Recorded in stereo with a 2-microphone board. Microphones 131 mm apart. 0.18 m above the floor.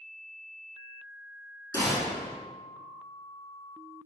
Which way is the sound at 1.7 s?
25° left (ahead or behind).